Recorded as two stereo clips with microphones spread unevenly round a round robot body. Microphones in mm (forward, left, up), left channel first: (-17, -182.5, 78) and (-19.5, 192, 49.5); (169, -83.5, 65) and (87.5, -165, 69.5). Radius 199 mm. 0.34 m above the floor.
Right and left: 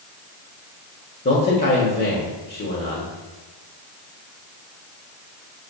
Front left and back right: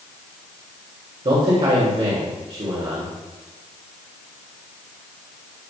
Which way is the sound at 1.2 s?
150° right.